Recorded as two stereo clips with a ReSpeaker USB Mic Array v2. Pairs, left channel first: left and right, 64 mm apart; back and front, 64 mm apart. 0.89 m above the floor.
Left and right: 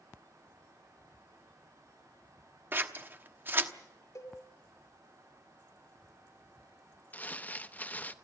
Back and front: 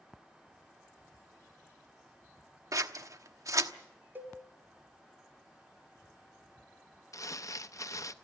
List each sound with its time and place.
2.7 s scissors: 35° right, 1.0 m
4.2 s a cowbell: 60° left, 3 m
7.1 s crumpling: 150° left, 0.7 m